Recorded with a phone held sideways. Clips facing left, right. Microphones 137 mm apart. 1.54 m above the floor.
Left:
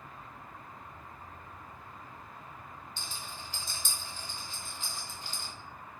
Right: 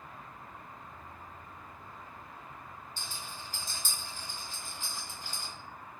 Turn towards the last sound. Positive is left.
turn(degrees=-45)  # may be behind; listen again after turning